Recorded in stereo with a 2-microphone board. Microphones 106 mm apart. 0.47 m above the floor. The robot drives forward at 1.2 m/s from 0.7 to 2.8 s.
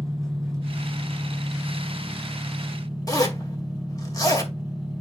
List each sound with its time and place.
0.0 s an engine running: centre (ahead or behind), 5 m
3.1 s a zipper: 35° left (ahead or behind), 2 m